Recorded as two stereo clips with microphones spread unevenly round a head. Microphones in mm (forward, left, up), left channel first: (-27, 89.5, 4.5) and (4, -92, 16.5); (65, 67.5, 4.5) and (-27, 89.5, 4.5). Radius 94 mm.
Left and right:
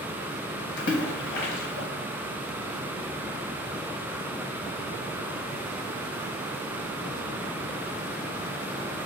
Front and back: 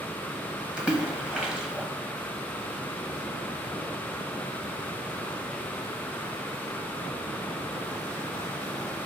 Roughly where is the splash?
Left.